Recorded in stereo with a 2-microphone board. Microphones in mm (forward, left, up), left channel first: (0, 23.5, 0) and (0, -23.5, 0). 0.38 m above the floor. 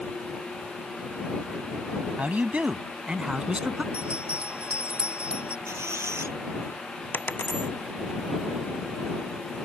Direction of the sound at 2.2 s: 35° right (ahead or behind).